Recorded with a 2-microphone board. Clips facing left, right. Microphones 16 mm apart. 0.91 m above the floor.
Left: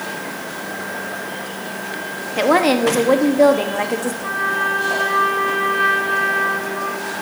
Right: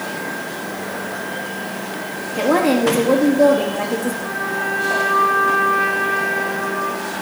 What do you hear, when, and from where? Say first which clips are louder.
2.4 s a woman speaking: left 1 dB; 35° left (ahead or behind), 0.8 m
4.2 s a trumpet: left 3 dB; 80° left, 3 m